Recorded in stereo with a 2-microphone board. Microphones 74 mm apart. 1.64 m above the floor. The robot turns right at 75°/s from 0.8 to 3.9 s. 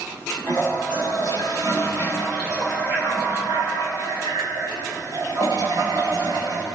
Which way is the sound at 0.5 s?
65° left.